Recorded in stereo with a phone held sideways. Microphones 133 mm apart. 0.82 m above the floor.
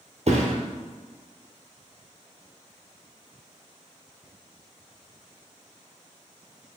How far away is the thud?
About 1.3 m.